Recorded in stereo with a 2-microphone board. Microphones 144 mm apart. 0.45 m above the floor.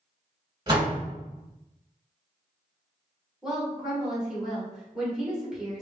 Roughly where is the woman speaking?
Centre.